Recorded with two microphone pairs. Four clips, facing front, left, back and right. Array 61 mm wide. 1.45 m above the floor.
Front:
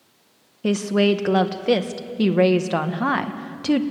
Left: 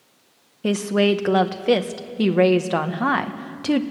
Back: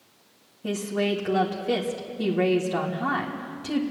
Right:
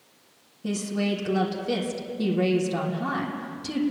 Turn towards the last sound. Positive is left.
turn(degrees=60)